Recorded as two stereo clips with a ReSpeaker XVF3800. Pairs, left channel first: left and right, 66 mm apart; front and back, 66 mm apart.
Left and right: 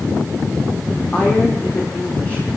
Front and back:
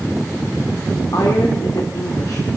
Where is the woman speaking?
20° left, 2.5 m.